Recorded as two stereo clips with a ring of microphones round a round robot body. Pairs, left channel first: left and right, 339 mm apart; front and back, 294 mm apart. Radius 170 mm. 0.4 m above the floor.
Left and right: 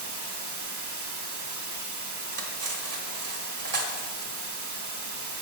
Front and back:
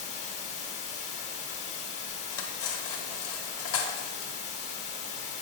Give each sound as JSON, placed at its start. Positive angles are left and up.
{"t": 0.0, "sound": "running water", "azimuth_deg": -65, "distance_m": 0.9}
{"t": 2.3, "sound": "cutlery clinking", "azimuth_deg": -45, "distance_m": 0.9}